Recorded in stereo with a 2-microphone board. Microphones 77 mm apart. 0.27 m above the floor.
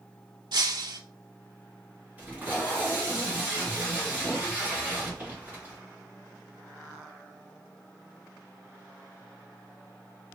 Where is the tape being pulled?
20° right (ahead or behind), 1.9 m.